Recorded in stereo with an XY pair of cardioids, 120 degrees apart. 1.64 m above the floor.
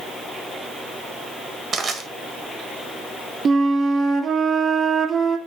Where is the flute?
35° right, 1.1 m.